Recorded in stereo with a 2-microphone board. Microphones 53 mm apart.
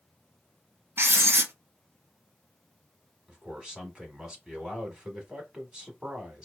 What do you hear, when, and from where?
1.0 s writing: 50° right (ahead or behind), 0.8 m
3.3 s a man speaking: 15° right (ahead or behind), 1.1 m